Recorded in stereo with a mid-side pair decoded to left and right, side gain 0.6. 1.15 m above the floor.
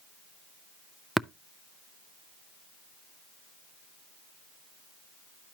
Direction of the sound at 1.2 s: Straight ahead.